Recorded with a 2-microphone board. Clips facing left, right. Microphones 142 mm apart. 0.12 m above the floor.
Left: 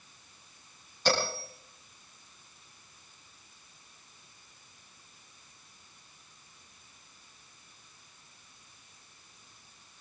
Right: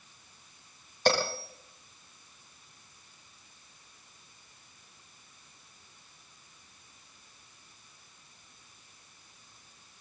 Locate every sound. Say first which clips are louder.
1.1 s a bell: right 2 dB; 60° right (ahead or behind), 9 m